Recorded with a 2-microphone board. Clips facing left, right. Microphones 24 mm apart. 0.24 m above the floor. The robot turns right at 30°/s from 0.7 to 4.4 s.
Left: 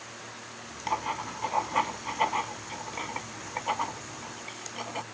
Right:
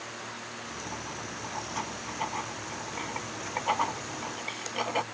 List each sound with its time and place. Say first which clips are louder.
0.9 s writing: left 12 dB; 65° left (ahead or behind); by 5.0 s 20° right (ahead or behind)